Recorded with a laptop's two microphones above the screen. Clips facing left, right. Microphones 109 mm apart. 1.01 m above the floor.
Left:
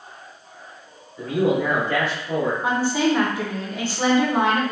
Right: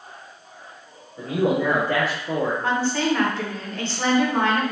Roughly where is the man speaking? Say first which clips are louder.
Left 1 dB; right.